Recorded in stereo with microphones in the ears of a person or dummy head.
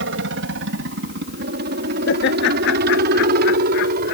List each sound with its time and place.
0.0 s a helicopter: 60° right (ahead or behind); by 4.2 s 50° right (ahead or behind)
2.1 s laughter: 65° left (ahead or behind)